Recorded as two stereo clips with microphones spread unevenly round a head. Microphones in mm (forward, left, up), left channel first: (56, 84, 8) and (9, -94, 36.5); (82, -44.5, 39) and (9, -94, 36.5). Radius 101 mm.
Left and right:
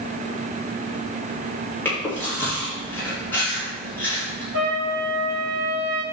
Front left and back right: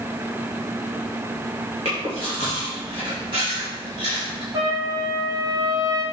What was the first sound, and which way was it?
Chewing, 155° left.